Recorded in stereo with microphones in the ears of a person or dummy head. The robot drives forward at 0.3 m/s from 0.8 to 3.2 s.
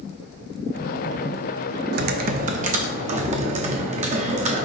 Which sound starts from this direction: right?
Typing on a keyboard, at 1.9 s.